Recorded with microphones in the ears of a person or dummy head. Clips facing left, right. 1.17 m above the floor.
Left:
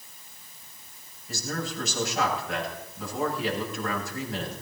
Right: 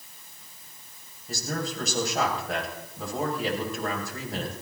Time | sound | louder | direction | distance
1.3 | a man speaking | right 1 dB | 40° right (ahead or behind) | 7 m